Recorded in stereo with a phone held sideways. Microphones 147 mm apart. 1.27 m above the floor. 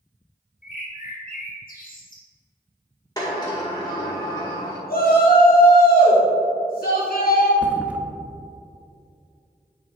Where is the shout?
70° left (ahead or behind), 2.5 m.